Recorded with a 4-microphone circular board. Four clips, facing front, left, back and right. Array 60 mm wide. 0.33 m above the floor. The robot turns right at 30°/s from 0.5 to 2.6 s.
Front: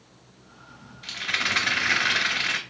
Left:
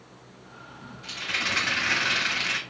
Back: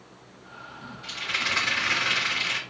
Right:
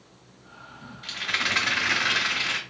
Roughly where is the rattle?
Ahead right.